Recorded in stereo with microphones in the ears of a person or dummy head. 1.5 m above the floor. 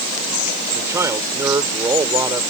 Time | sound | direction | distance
0.8 | a man speaking | 15° right (ahead or behind) | ?